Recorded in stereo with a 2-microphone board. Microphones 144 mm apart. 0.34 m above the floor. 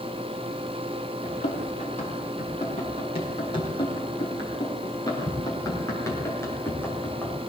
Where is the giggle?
No giggle in this recording.